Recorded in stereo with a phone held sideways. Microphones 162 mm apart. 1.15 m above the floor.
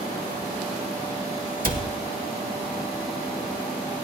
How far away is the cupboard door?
About 1.6 m.